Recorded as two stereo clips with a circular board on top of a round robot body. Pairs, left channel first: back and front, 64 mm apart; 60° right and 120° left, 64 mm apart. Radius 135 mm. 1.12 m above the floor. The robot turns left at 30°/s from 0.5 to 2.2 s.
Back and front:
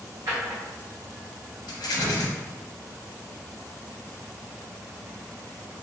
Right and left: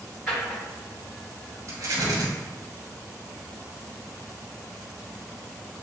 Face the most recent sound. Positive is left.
turn(degrees=150)